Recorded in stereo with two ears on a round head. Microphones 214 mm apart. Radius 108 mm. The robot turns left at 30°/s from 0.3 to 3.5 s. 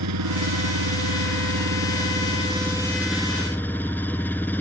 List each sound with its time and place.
0.0 s an engine running: 95° right; by 4.6 s 170° left